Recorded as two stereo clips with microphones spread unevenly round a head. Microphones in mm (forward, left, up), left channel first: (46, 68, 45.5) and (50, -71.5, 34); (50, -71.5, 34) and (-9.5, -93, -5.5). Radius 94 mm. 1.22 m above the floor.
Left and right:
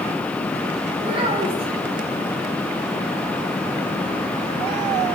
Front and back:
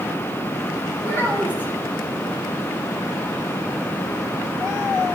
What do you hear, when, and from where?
1.0 s a child speaking: 35° right, 7 m